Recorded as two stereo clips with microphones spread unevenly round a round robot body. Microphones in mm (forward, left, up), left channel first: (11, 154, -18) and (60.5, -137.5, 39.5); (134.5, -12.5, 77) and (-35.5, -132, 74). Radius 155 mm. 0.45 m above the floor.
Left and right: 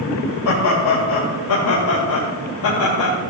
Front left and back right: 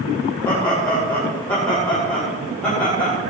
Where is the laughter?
115° left, 2 m.